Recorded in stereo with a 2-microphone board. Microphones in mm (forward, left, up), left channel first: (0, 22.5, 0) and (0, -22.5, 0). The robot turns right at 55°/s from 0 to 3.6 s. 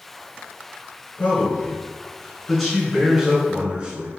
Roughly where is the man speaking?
Left.